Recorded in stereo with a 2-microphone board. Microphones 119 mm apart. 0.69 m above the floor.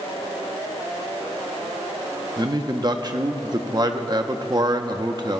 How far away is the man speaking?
About 0.7 m.